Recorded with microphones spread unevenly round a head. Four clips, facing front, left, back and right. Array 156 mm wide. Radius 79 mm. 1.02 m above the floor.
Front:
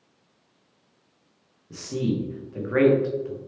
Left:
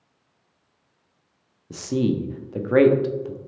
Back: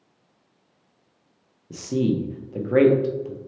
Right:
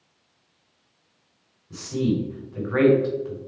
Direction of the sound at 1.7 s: 125° left.